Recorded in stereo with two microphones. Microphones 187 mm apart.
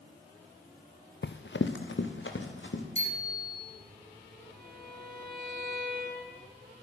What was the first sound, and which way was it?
Running footsteps, 70° left (ahead or behind).